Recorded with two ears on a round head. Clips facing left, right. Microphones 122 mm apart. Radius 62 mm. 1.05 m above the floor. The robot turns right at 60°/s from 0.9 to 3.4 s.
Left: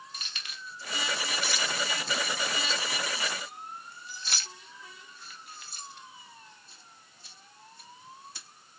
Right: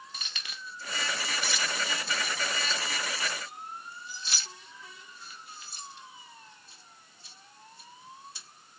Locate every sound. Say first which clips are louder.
0.1 s keys jangling: right 1 dB; 70° right (ahead or behind), 1.0 m; by 8.5 s 40° left (ahead or behind), 1.0 m